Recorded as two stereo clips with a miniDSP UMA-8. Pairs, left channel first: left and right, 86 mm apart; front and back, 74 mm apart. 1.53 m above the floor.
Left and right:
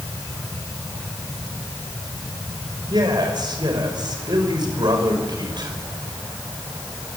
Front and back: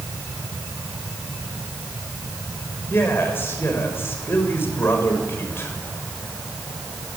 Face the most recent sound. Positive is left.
turn(degrees=-60)